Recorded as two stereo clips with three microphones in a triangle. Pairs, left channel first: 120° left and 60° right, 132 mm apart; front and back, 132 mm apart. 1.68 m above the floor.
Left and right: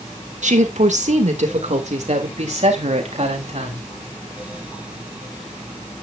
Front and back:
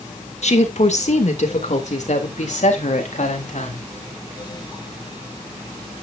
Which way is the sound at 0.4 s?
35° right.